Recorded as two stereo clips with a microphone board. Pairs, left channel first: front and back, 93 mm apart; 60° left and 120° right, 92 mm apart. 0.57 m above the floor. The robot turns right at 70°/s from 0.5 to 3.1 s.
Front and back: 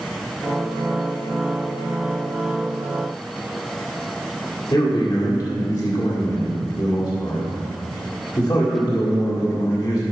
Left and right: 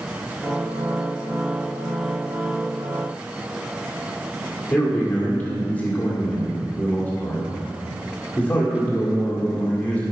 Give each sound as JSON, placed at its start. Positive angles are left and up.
{"t": 4.7, "sound": "a man speaking", "azimuth_deg": -10, "distance_m": 1.8}